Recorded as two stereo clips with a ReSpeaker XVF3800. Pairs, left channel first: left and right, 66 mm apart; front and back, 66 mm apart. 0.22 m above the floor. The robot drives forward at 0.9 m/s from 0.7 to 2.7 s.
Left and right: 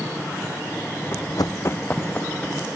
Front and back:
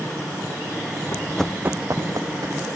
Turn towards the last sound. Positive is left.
turn(degrees=165)